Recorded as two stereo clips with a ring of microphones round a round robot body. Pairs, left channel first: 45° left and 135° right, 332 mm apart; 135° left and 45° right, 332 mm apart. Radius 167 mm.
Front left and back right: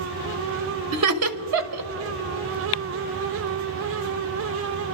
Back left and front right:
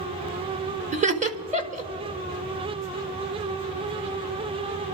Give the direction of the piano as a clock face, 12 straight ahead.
I don't hear a piano.